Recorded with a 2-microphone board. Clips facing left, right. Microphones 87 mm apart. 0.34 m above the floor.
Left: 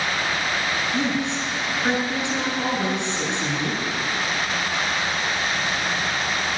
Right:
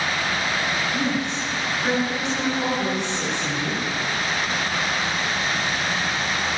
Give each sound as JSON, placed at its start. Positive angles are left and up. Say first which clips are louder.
{"t": 0.9, "sound": "a woman speaking", "louder": "left 1 dB", "side_deg": 20, "distance_m": 5.0}